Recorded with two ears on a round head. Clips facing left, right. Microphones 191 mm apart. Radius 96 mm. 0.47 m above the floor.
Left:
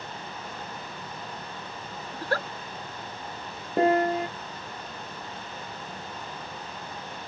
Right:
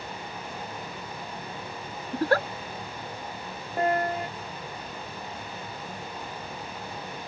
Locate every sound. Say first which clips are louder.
2.1 s a giggle: right 7 dB; 50° right (ahead or behind)
3.8 s a piano: left 4 dB; 65° left (ahead or behind)